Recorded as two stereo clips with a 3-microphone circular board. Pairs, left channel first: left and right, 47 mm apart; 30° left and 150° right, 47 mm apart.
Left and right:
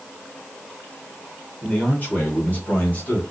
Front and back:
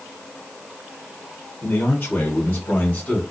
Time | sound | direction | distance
1.6 | a man speaking | 40° left | 1.8 m